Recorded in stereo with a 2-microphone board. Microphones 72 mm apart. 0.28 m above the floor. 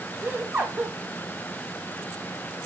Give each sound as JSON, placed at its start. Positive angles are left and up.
{"t": 0.2, "sound": "laughter", "side_deg": -20, "distance_m": 1.1}